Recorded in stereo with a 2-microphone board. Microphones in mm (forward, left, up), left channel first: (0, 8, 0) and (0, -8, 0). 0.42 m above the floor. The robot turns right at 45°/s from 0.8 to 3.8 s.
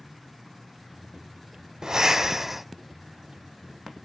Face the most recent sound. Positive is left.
turn(degrees=35)